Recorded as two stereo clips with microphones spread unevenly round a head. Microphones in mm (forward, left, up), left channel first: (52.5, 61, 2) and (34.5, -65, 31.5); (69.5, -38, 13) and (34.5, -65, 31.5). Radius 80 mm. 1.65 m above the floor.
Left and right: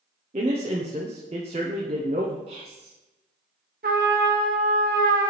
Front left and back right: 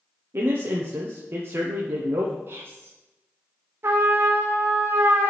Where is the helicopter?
I don't hear a helicopter.